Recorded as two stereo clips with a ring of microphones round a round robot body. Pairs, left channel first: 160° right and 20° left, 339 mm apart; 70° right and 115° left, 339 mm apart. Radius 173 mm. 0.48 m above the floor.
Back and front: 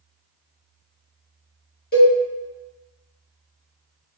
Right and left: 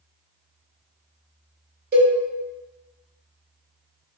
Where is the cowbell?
155° left, 1.6 m.